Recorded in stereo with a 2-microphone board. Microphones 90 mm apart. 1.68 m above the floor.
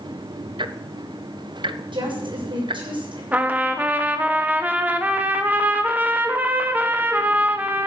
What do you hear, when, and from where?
0.6 s ticking: 70° right (ahead or behind), 0.8 m
1.9 s a woman speaking: 75° right (ahead or behind), 7 m
3.3 s a trumpet: 20° right (ahead or behind), 1.5 m